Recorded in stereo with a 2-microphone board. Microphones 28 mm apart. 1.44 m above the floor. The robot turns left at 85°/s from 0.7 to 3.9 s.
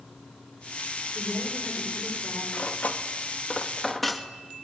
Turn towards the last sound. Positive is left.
turn(degrees=5)  # may be behind; listen again after turning